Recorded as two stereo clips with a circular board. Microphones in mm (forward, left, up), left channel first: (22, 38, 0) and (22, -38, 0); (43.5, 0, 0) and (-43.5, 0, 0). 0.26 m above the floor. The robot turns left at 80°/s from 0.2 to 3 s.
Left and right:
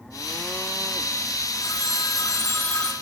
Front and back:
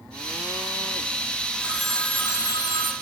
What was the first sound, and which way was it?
A phone ringing, 110° left.